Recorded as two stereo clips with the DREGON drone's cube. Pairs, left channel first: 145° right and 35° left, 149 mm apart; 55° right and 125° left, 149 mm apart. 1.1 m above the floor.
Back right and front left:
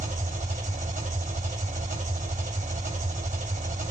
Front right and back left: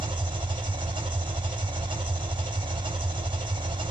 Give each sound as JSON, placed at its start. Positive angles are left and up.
{"t": 0.0, "sound": "an engine running", "azimuth_deg": 65, "distance_m": 1.9}